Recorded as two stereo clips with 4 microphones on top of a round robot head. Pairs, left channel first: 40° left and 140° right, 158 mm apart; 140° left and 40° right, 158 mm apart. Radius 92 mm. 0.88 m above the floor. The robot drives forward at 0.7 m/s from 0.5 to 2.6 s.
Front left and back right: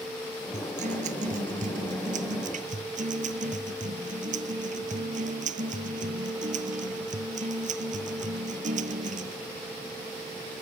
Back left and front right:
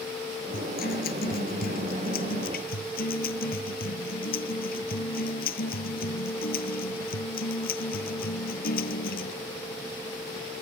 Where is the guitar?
175° left.